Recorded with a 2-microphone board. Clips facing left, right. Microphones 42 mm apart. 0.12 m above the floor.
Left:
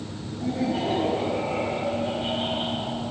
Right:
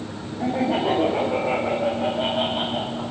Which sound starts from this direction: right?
Laughter, at 0.4 s.